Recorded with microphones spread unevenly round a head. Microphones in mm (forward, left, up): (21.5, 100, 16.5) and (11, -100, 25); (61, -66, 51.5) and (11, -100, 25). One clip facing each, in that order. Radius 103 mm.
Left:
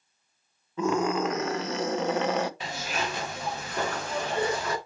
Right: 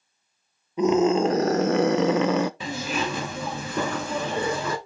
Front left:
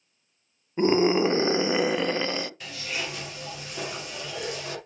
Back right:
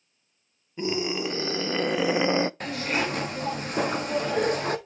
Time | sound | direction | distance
0.8 | a scream | 20° right | 1.1 m
2.6 | a zipper | 100° right | 1.3 m